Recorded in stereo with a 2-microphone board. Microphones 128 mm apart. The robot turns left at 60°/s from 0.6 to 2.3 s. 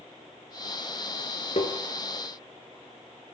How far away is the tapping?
About 0.7 m.